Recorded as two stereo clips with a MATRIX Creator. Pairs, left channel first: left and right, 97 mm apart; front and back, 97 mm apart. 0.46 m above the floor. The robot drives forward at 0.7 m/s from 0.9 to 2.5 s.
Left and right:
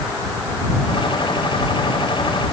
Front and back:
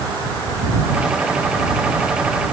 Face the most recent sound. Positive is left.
No sound to turn to.